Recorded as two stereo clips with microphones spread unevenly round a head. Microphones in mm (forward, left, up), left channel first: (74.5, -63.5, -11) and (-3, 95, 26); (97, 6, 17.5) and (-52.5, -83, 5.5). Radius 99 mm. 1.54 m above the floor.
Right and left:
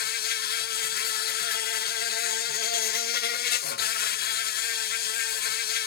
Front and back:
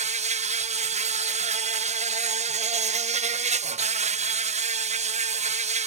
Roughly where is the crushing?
No crushing in this recording.